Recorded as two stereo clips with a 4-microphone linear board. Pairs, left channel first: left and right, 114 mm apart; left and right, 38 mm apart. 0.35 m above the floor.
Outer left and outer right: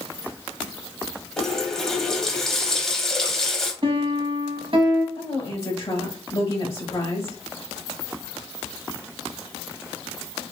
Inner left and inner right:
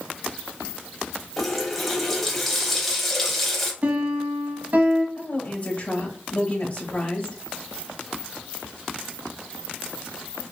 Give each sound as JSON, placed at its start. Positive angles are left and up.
{"t": 1.4, "sound": "a running tap", "side_deg": 5, "distance_m": 1.1}
{"t": 3.8, "sound": "a piano", "side_deg": -50, "distance_m": 0.8}
{"t": 5.2, "sound": "a woman speaking", "side_deg": 40, "distance_m": 1.4}